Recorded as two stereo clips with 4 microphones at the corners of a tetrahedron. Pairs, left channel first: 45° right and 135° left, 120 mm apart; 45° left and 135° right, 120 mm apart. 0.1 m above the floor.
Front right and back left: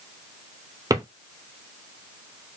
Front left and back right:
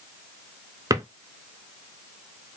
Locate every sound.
0.9 s a drawer: 175° left, 0.5 m